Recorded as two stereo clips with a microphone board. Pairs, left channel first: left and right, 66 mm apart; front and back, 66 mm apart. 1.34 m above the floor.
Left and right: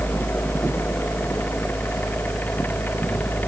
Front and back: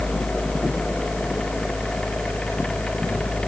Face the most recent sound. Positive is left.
No sound to turn to.